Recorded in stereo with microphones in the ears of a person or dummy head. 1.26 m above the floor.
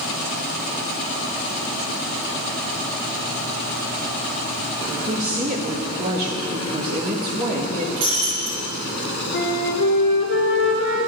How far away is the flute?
About 3 m.